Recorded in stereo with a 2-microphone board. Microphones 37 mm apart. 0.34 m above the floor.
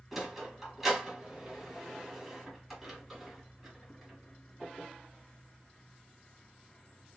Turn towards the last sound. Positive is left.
turn(degrees=-5)  # may be behind; listen again after turning